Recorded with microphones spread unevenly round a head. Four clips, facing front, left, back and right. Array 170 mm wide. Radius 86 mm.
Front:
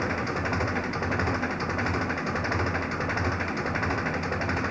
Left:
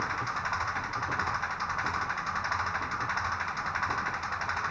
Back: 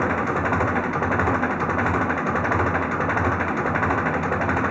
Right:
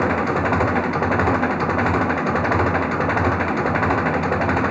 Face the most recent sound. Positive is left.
turn(degrees=-110)